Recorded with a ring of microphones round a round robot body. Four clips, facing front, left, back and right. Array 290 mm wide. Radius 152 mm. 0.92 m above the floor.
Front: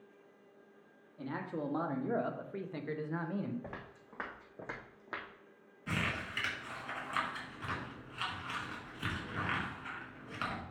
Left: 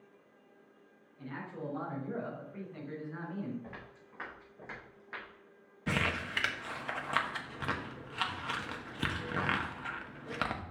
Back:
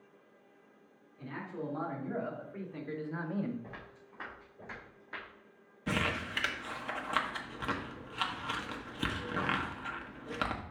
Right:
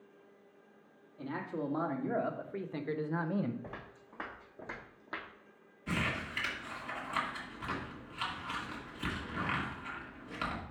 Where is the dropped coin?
No dropped coin in this recording.